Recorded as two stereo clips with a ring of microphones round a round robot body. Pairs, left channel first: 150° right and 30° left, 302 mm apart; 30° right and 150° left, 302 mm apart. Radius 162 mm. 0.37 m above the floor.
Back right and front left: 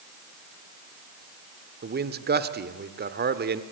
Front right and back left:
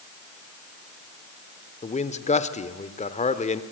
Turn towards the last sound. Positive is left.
turn(degrees=15)